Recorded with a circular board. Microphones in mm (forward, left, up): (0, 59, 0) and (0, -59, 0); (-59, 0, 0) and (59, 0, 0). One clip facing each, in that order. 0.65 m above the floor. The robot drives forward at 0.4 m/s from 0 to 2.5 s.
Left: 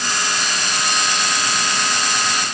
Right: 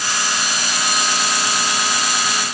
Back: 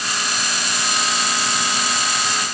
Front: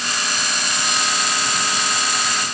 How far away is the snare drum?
I don't hear a snare drum.